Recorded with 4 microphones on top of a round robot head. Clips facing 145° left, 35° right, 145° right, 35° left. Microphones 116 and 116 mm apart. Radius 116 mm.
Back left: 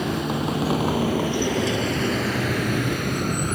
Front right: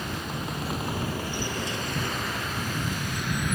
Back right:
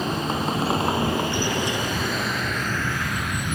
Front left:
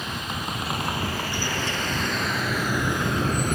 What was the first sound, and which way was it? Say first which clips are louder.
A vehicle: back left 9 dB, back right 7 dB; 160° left.